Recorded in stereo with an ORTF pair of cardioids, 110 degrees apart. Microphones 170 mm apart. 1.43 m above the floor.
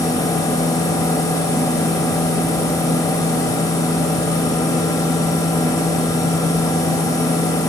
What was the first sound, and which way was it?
A machine running, 20° left.